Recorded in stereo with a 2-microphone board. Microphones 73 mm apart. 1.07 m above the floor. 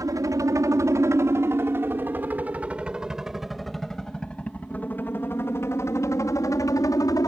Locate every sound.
0.0 s a helicopter: 50° right (ahead or behind); by 7.3 s 55° left (ahead or behind)